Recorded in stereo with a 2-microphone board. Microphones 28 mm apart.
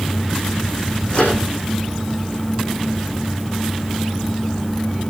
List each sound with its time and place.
1.1 s a microwave: 40° left (ahead or behind), 7 m